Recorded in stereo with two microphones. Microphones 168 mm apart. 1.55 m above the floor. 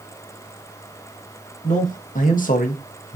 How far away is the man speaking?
About 1.3 m.